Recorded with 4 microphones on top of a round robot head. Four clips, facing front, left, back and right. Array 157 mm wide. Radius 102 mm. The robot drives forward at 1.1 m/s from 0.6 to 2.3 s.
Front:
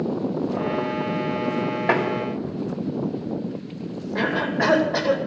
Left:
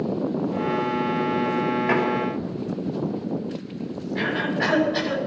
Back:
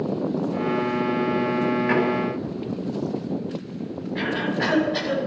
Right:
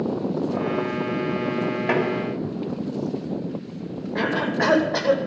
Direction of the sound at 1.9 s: 10° right.